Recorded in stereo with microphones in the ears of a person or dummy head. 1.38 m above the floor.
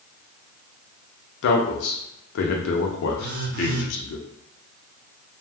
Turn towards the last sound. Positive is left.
turn(degrees=-50)  # may be behind; listen again after turning